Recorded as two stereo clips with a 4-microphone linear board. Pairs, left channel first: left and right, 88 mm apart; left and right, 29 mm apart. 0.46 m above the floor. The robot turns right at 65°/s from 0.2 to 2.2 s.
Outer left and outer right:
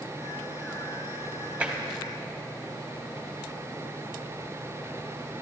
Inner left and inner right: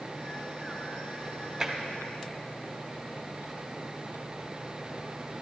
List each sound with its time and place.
1.6 s tapping: 15° right (ahead or behind), 1.3 m; by 1.8 s 25° right (ahead or behind), 1.3 m